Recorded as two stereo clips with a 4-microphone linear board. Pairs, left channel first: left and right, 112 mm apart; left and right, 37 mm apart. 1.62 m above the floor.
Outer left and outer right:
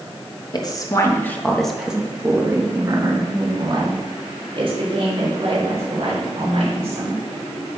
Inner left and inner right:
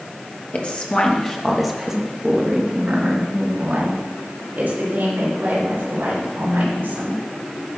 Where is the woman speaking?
40° left (ahead or behind), 1.2 m; by 7.2 s 60° right (ahead or behind), 4 m.